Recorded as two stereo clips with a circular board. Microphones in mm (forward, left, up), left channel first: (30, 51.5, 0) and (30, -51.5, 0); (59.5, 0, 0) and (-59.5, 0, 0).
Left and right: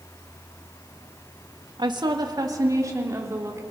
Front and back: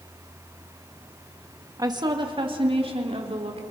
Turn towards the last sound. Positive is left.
turn(degrees=-150)